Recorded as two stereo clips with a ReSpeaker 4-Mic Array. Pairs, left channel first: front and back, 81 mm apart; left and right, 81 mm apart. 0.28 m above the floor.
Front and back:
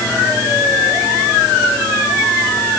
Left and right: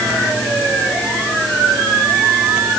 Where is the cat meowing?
No cat meowing in this recording.